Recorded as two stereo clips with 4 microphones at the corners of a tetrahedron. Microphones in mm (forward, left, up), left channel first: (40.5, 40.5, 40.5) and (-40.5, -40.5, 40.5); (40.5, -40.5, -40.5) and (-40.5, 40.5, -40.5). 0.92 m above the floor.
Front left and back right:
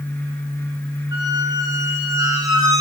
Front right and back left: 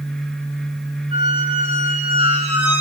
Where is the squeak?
165° left, 0.7 m.